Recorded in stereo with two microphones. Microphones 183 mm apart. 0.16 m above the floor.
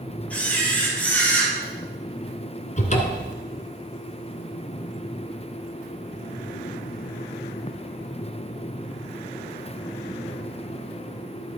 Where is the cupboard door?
45° left (ahead or behind), 1.2 m.